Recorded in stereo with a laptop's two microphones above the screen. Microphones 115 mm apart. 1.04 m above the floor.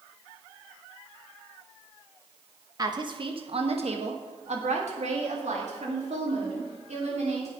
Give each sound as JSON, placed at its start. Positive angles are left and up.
{"t": 2.8, "sound": "a woman speaking", "side_deg": -35, "distance_m": 1.0}